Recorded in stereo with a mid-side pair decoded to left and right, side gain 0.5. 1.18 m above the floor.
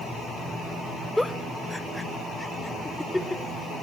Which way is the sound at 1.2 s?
5° left.